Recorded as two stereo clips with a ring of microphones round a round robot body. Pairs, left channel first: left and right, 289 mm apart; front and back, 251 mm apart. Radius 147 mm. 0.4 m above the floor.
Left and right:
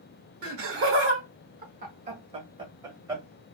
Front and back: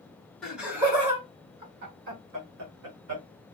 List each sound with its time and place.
0.4 s laughter: 90° right, 1.0 m; by 3.2 s 170° right, 1.7 m